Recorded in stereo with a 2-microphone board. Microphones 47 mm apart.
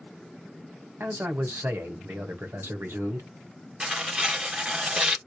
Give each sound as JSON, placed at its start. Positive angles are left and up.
{"t": 1.0, "sound": "a man speaking", "side_deg": -60, "distance_m": 1.4}
{"t": 3.8, "sound": "tearing paper", "side_deg": -20, "distance_m": 1.2}